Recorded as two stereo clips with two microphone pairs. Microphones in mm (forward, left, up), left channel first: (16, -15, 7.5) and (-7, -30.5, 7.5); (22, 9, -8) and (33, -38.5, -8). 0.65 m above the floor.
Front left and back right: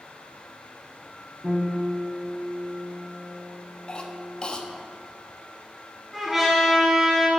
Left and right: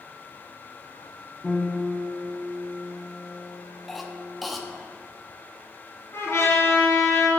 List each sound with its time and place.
1.4 s a piano: 170° right, 1.3 m
3.9 s a cough: 10° left, 0.6 m
6.1 s a trumpet: 130° left, 2 m